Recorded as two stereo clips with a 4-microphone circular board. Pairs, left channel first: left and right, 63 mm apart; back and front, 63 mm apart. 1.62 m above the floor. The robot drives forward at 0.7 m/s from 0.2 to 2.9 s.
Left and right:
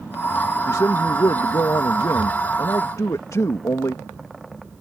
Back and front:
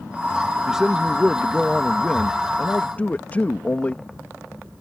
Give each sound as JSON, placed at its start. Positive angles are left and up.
{"t": 0.7, "sound": "a man speaking", "azimuth_deg": 75}